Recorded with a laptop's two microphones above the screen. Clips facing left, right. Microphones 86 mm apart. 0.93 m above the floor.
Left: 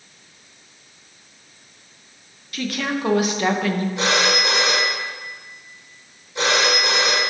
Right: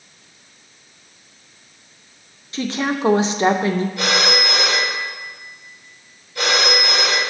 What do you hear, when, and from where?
2.5 s a woman speaking: 25° right (ahead or behind), 0.5 m
4.0 s a phone ringing: 20° left (ahead or behind), 2.5 m